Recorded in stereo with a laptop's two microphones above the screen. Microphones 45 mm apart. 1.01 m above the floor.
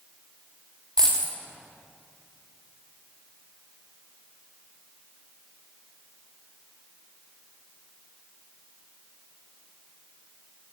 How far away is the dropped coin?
About 0.7 m.